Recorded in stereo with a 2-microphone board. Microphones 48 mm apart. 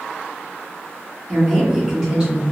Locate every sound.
1.3 s a woman speaking: centre (ahead or behind), 1.6 m; by 2.4 s 25° right (ahead or behind), 1.5 m